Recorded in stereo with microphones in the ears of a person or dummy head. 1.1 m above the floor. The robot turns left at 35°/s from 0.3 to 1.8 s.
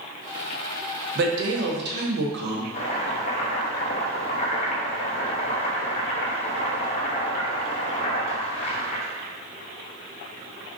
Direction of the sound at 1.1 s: 50° right (ahead or behind).